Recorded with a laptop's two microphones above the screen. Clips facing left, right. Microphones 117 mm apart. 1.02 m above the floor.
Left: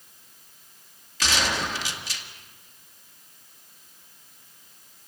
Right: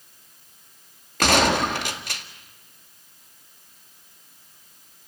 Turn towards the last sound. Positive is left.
turn(degrees=-55)  # may be behind; listen again after turning